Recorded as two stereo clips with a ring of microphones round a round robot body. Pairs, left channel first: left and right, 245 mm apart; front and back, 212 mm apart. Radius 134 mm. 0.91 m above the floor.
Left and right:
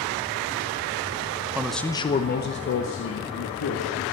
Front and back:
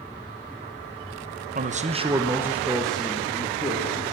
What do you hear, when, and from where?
1.6 s a man speaking: 165° right, 0.9 m; by 4.1 s 75° left, 2 m